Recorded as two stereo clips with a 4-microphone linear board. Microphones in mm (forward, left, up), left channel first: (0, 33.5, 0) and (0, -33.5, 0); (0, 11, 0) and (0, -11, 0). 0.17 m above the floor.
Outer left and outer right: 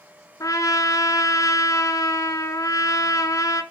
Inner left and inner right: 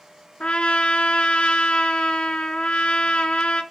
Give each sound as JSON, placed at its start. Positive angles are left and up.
{"t": 0.4, "sound": "a trumpet", "side_deg": 60, "distance_m": 0.7}